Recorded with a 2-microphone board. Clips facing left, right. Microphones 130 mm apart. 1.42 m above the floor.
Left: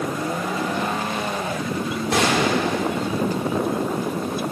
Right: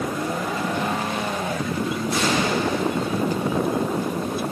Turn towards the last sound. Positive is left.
turn(degrees=80)